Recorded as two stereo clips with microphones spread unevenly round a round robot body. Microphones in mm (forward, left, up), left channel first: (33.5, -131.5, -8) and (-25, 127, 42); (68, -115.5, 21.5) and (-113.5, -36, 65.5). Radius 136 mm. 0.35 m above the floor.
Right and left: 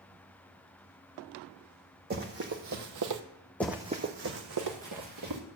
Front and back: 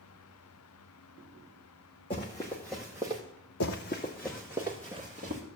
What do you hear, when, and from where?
2.1 s running footsteps: 50° left, 1.2 m; by 3.2 s 95° left, 0.8 m
3.6 s running footsteps: 15° left, 0.7 m; by 5.4 s 100° left, 1.9 m